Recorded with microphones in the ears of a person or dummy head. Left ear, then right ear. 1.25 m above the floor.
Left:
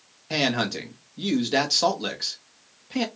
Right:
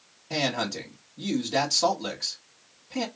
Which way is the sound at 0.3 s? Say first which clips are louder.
Left 3 dB; 50° left (ahead or behind).